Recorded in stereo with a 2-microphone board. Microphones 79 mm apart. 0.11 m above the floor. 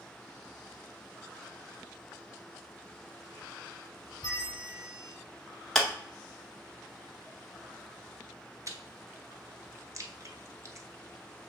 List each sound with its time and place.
4.2 s a bell: 50° left (ahead or behind), 1.3 m
5.8 s a clap: 5° left (ahead or behind), 1.0 m
8.7 s chewing: 40° right (ahead or behind), 0.7 m